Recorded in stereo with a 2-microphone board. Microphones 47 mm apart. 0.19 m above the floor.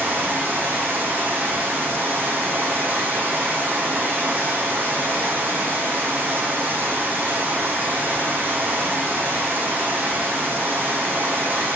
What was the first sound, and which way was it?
Running water, 45° right (ahead or behind).